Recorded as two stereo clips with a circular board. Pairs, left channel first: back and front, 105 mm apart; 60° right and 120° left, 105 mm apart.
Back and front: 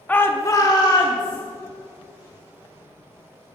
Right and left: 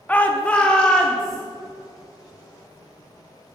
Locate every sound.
0.1 s a shout: 120° right, 0.8 m; by 1.4 s 140° right, 1.6 m